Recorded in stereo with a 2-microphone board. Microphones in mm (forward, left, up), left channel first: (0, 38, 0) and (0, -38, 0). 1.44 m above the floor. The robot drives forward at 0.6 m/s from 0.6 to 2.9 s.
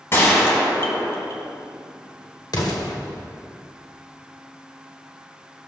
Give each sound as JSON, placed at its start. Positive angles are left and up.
{"t": 0.1, "sound": "a gunshot", "side_deg": 35, "distance_m": 2.5}
{"t": 2.5, "sound": "an explosion", "side_deg": 60, "distance_m": 1.9}